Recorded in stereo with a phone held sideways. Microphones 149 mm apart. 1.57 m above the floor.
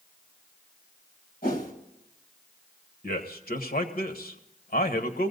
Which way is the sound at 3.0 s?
85° left.